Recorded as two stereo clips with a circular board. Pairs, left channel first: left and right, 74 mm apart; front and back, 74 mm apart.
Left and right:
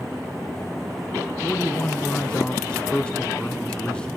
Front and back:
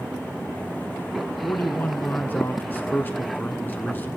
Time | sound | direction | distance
1.4 | a man speaking | 30° left | 1.4 m